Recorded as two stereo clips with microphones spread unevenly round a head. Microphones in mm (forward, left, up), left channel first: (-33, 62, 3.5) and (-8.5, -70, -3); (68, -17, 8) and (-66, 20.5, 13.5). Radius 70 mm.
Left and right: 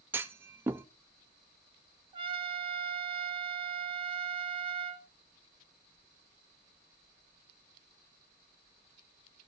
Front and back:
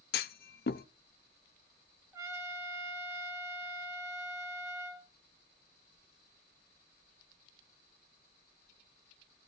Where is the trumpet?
130° right, 1.8 m.